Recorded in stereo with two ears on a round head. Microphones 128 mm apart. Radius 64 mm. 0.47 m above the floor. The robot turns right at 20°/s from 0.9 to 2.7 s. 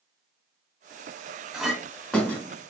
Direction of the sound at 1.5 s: 5° right (ahead or behind).